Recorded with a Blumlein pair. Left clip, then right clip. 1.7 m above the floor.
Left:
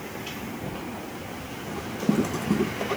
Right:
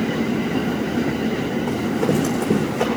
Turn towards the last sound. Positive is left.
turn(degrees=-70)